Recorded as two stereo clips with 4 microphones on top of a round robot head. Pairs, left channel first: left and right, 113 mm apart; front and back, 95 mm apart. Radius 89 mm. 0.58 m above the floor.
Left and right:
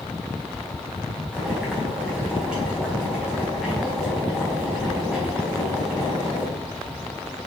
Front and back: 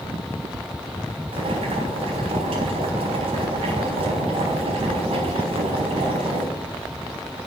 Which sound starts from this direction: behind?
Boiling, at 1.3 s.